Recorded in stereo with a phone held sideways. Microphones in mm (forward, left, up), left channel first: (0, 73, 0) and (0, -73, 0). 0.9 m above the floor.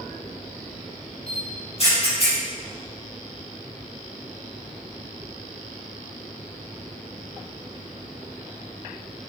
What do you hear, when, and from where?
1.3 s a camera shutter: 45° left (ahead or behind), 5 m